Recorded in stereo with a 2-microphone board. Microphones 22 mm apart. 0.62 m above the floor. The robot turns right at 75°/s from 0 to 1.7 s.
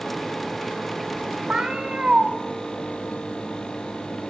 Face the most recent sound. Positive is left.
turn(degrees=-35)  # may be behind; listen again after turning